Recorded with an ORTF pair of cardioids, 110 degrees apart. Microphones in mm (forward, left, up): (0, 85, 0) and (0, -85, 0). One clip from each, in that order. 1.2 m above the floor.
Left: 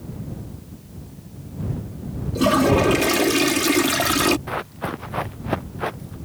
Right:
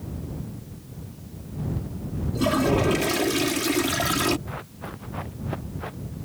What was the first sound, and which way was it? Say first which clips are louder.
A toilet flushing: left 5 dB; 25° left.